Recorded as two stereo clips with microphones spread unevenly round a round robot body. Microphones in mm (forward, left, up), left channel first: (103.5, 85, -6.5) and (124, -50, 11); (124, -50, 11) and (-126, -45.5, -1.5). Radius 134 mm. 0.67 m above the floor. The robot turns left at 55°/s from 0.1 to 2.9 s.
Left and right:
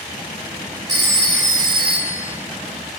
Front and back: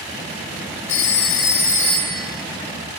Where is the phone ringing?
15° right, 2.5 m; by 2.3 s 90° right, 2.5 m.